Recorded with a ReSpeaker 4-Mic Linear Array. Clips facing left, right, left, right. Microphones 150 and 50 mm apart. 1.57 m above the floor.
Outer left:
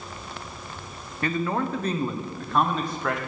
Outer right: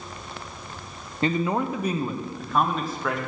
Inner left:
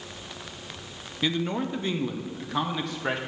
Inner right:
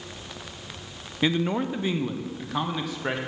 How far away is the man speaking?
About 0.6 m.